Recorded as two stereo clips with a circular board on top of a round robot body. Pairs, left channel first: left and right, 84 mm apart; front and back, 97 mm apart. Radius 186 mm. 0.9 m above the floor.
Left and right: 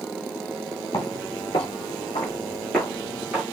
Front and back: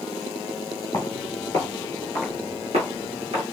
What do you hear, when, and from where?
0.9 s footsteps: 55° left, 1.5 m; by 3.4 s 165° right, 1.3 m